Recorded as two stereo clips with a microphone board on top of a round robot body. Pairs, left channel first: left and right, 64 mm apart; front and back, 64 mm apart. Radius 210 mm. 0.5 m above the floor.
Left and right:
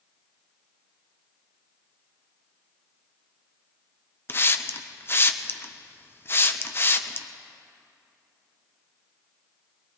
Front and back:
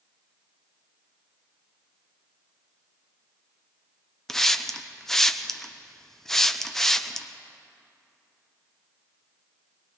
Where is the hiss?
80° left, 1.0 m.